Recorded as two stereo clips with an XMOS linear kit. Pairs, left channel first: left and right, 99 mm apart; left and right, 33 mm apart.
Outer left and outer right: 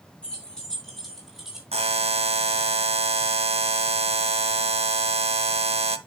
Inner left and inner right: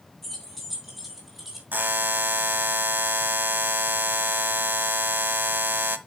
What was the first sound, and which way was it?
Keys jangling, 10° left (ahead or behind).